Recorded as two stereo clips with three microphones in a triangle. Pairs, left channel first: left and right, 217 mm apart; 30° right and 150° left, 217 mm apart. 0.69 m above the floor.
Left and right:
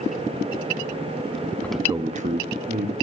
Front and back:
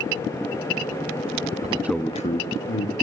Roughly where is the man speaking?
Behind.